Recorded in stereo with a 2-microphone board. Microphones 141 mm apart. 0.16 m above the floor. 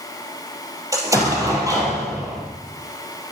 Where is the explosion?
25° right (ahead or behind), 3 m.